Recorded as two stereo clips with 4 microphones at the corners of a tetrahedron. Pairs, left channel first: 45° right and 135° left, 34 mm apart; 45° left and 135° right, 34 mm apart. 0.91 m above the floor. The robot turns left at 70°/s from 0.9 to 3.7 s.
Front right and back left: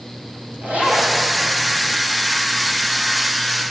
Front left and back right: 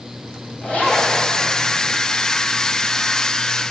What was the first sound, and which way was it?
A zipper, 95° left.